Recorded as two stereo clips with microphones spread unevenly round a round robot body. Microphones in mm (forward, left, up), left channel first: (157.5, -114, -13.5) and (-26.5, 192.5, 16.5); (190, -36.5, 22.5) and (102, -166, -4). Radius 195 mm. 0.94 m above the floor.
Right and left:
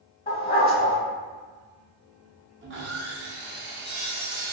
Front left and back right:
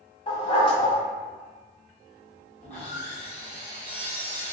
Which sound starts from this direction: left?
Sawing, at 2.6 s.